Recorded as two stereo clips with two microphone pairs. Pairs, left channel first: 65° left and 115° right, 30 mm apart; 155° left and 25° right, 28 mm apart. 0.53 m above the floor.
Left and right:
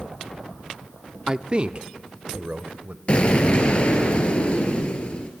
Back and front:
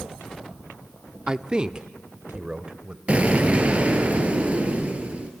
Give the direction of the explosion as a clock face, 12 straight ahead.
11 o'clock.